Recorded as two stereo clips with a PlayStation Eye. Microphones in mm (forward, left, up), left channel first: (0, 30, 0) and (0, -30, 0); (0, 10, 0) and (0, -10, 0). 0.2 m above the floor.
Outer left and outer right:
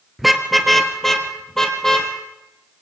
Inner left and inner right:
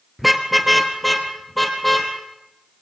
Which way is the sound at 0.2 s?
Centre (ahead or behind).